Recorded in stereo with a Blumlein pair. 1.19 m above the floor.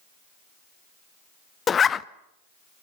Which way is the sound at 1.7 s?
20° left.